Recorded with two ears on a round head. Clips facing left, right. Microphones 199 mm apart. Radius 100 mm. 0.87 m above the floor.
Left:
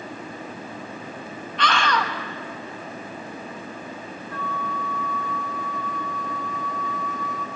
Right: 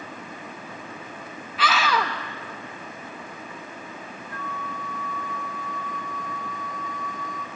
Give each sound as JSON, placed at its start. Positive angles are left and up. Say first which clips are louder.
{"t": 1.6, "sound": "a scream", "louder": "even", "side_deg": -5, "distance_m": 1.1}
{"t": 4.3, "sound": "a flute", "louder": "left 5 dB", "side_deg": 60, "distance_m": 1.0}